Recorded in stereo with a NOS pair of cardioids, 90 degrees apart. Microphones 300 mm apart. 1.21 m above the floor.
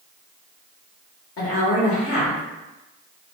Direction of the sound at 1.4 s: 50° left.